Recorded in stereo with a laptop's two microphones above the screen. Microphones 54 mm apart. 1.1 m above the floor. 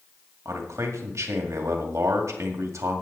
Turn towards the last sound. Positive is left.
turn(degrees=-65)  # may be behind; listen again after turning